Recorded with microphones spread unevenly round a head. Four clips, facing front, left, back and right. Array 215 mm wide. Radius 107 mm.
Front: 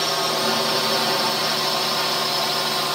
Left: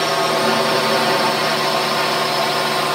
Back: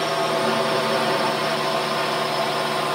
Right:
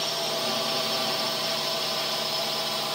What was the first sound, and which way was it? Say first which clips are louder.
A drone: left 13 dB, back 2 dB; 100° left.